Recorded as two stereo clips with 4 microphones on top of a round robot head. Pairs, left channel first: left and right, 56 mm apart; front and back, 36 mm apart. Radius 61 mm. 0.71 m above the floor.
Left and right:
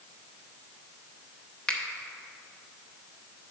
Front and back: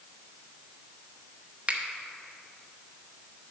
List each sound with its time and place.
1.7 s a finger snap: 150° left, 0.9 m